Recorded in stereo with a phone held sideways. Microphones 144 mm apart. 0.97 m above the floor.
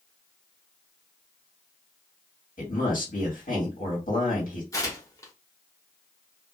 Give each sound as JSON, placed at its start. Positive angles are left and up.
{"t": 2.6, "sound": "a man speaking", "side_deg": 70, "distance_m": 1.6}
{"t": 4.7, "sound": "tearing paper", "side_deg": 25, "distance_m": 0.8}